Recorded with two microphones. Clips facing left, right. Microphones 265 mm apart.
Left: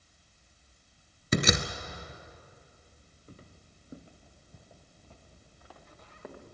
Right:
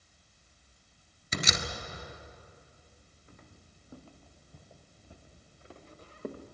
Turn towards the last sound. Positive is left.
turn(degrees=-40)  # may be behind; listen again after turning